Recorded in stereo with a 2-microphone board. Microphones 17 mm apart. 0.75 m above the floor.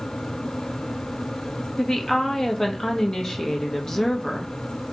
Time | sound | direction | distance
1.8 | a woman speaking | 35° left (ahead or behind) | 0.7 m